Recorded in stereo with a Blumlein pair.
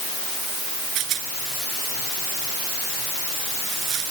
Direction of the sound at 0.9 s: 35° right.